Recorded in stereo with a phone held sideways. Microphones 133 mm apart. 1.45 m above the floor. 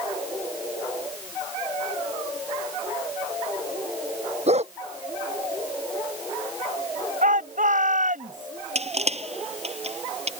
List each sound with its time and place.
4.5 s a dog barking: 55° right (ahead or behind)
7.2 s a shout: 80° right
8.8 s crushing: 55° right (ahead or behind)